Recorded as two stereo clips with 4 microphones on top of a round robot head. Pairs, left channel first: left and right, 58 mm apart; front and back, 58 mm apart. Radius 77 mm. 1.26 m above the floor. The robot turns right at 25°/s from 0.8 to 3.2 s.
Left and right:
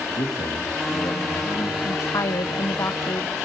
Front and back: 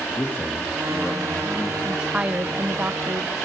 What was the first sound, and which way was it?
A man speaking, 60° left.